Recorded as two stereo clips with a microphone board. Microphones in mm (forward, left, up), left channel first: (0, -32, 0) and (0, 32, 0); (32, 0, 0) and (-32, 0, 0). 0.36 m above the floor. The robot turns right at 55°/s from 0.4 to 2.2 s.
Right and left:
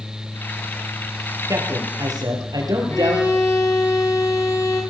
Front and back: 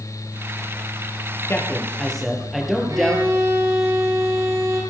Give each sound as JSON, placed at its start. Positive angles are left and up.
{"t": 1.5, "sound": "a man speaking", "azimuth_deg": 50, "distance_m": 7.0}
{"t": 2.9, "sound": "a violin", "azimuth_deg": -140, "distance_m": 8.5}